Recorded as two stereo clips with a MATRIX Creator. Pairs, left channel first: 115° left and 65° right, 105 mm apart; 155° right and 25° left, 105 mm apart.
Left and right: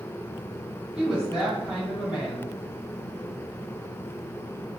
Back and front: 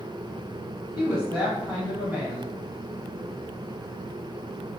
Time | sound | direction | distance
0.9 | a woman speaking | 5° right | 1.5 m